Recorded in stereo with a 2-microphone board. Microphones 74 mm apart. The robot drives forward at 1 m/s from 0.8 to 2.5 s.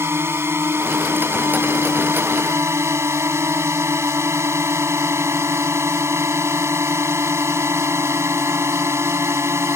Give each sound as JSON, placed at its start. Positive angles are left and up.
{"t": 0.0, "sound": "a drone", "side_deg": -35}